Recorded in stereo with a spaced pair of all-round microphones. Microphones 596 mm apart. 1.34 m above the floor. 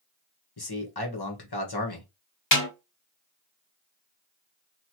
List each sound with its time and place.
0.6 s a man speaking: 40° left (ahead or behind), 1.1 m
2.5 s a snare drum: 20° left (ahead or behind), 1.9 m